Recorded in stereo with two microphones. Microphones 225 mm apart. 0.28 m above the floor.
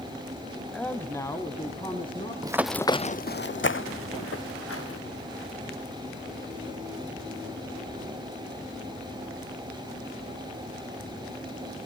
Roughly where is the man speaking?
Centre.